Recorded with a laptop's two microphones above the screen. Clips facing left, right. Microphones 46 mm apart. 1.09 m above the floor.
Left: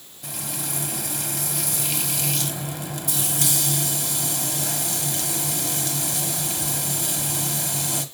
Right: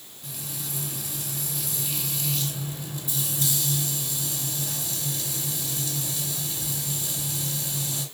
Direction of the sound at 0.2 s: 75° left (ahead or behind).